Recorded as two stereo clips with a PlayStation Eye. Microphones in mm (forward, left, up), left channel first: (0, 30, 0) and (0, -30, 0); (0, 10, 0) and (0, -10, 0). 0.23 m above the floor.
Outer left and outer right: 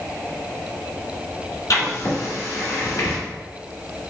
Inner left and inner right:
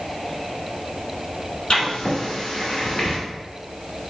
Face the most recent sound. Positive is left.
turn(degrees=65)  # may be behind; listen again after turning